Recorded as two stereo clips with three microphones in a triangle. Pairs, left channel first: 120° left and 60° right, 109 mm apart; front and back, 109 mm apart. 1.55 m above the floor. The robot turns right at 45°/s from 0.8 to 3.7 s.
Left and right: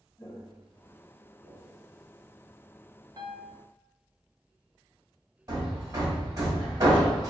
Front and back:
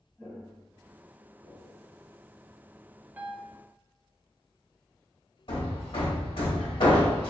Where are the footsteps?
80° left, 1.6 m; by 1.8 s 50° right, 2 m.